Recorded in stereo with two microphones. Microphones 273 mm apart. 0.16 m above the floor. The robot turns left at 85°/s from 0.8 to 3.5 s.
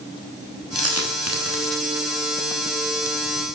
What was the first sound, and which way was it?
A dropped coin, 60° right (ahead or behind).